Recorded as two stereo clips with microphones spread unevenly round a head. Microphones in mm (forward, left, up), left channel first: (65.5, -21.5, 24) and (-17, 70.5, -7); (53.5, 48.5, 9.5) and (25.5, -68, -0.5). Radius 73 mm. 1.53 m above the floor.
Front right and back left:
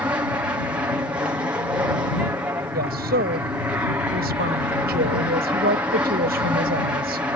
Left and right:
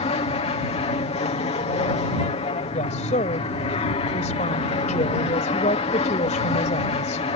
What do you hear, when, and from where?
0.0 s an aircraft: 70° left
2.7 s a woman speaking: 125° left